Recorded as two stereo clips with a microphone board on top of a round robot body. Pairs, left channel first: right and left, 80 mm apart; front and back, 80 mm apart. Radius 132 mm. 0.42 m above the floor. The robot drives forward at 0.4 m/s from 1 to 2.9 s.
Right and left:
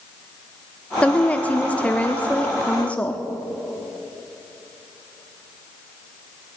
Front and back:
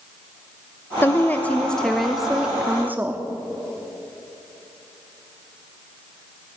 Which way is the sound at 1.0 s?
30° right.